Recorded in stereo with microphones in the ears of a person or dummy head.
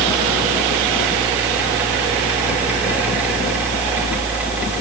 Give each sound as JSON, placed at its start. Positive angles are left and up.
{"t": 0.0, "sound": "a fan", "side_deg": -5, "distance_m": 4.0}